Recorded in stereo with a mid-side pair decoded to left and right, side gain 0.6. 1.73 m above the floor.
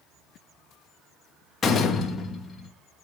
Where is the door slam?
30° left, 2.5 m.